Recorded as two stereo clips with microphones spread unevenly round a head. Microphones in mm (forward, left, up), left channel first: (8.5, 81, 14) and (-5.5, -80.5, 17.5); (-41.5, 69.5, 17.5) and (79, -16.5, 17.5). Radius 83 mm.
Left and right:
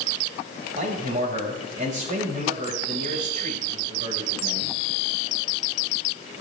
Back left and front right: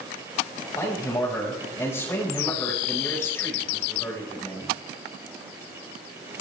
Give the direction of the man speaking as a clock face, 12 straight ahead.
5 o'clock.